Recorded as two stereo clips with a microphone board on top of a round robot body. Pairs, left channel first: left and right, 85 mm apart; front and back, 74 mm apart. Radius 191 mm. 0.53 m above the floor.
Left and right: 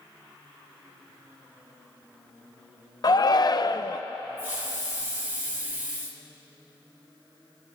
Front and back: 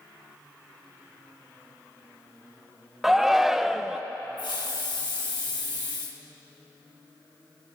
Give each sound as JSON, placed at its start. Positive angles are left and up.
{"t": 3.0, "sound": "a shout", "azimuth_deg": 95, "distance_m": 0.9}
{"t": 4.4, "sound": "a hiss", "azimuth_deg": -25, "distance_m": 1.6}